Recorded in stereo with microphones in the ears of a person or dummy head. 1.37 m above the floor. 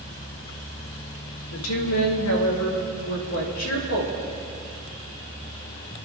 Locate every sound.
1.5 s a woman speaking: 85° left, 2 m; by 4.1 s 80° left, 4 m